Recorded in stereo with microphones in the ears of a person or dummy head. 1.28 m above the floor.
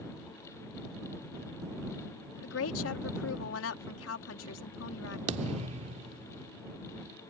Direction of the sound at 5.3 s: 35° right (ahead or behind).